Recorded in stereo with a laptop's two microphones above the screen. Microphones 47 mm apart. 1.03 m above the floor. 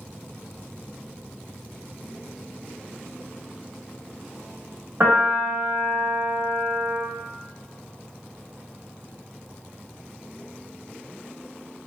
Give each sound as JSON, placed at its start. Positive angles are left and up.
{"t": 5.0, "sound": "a piano", "side_deg": -65, "distance_m": 1.3}